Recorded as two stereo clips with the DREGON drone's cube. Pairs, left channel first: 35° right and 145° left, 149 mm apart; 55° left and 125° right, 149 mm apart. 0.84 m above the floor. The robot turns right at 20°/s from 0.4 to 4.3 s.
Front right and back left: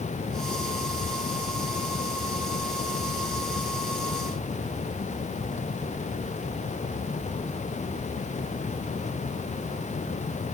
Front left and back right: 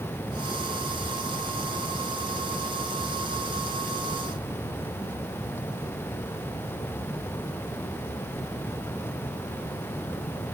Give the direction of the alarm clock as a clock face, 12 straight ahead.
I don't hear an alarm clock.